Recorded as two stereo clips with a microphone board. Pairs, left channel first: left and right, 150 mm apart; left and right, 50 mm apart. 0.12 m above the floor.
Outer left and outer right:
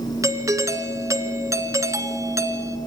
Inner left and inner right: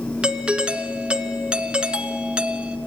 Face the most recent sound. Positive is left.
turn(degrees=-20)  # may be behind; listen again after turning